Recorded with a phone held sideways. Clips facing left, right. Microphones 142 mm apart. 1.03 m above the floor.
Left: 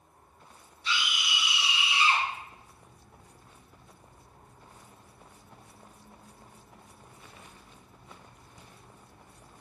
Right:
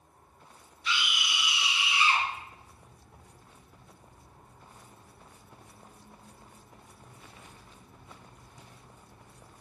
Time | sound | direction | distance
0.8 | a scream | 30° left (ahead or behind) | 0.7 m